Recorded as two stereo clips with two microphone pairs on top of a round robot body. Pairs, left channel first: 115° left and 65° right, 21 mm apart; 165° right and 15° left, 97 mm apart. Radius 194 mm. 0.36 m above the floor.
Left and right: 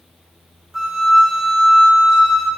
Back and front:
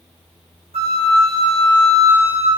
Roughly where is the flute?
Ahead.